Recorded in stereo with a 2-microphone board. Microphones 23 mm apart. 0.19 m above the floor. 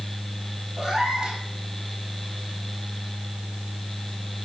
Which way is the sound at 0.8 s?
30° right (ahead or behind).